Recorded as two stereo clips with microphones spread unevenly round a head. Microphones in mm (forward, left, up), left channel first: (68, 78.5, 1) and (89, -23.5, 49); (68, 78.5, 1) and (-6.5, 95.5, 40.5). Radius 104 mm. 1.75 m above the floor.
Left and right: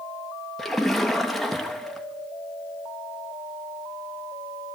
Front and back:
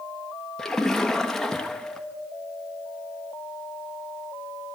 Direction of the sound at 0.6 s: 135° right.